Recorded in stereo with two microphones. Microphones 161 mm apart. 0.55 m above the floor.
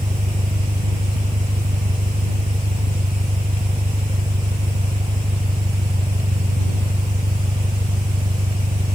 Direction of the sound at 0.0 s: 50° right (ahead or behind).